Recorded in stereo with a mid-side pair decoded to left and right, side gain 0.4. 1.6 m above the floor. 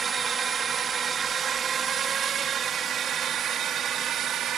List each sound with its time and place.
0.0 s a drone: 45° right; by 4.6 s 70° right